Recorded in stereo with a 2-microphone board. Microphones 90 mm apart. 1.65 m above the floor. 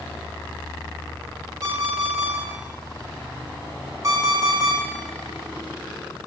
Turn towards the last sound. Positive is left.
turn(degrees=-40)  # may be behind; listen again after turning